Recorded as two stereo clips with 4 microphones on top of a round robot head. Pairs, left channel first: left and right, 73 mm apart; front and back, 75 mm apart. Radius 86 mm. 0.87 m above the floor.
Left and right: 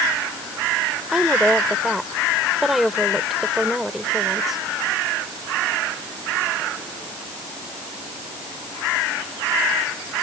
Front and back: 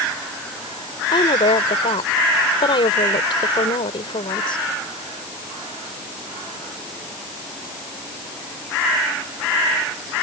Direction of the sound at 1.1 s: 5° right.